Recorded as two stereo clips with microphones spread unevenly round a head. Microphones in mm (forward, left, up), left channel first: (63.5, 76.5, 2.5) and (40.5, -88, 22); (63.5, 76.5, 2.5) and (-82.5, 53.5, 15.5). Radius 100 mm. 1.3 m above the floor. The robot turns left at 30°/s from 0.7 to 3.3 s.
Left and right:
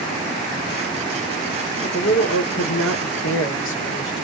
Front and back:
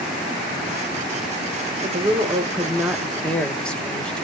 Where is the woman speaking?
135° left, 1.0 m; by 4.2 s 95° left, 1.0 m.